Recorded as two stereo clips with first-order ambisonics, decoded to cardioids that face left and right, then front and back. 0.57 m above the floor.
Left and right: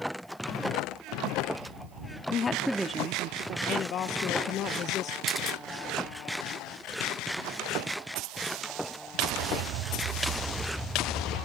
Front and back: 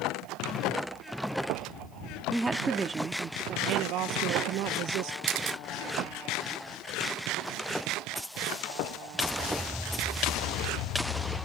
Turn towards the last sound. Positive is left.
turn(degrees=170)